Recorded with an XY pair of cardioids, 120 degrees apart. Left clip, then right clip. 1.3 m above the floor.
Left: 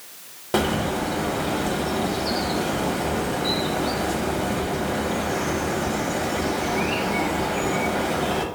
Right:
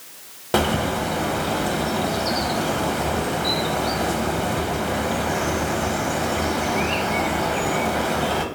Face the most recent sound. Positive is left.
turn(degrees=-15)